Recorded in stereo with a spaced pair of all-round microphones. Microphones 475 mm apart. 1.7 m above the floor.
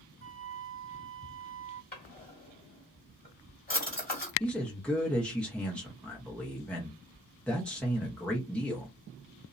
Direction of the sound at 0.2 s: 30° right (ahead or behind).